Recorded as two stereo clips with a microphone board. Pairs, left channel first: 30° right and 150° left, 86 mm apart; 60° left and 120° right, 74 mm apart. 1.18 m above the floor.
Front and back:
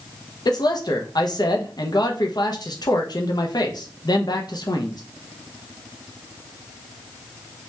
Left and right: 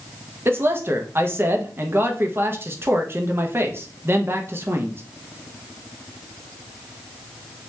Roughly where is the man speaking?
Ahead right.